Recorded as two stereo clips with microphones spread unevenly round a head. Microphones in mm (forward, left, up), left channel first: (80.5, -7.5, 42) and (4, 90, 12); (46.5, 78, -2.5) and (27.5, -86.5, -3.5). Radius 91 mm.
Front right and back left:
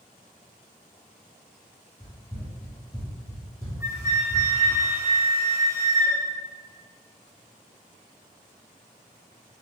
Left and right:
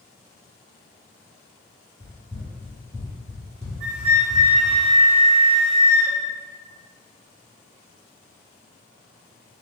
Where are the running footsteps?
20° right, 1.9 m; by 4.8 s 30° right, 3.5 m.